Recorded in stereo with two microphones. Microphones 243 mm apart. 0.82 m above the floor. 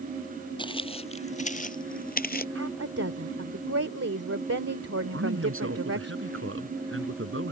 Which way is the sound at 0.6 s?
20° left (ahead or behind).